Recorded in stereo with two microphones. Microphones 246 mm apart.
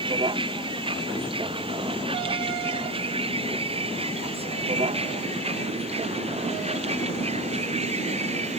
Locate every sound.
0.0 s a vehicle: 20° right (ahead or behind); by 8.6 s 25° right (ahead or behind)